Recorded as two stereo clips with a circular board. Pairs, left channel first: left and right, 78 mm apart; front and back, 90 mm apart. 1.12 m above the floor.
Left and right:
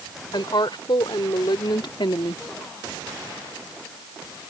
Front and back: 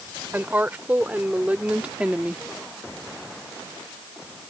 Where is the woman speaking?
110° left; by 2.4 s 100° left.